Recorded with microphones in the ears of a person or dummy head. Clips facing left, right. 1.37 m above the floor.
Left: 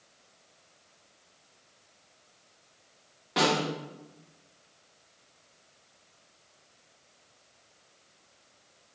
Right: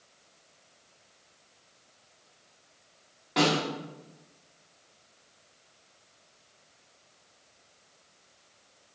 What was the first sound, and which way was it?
A snare drum, 10° left (ahead or behind).